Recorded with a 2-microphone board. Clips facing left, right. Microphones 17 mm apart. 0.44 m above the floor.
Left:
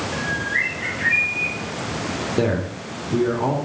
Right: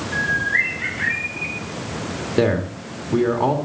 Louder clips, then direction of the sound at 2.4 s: Right 5 dB; 30° right (ahead or behind).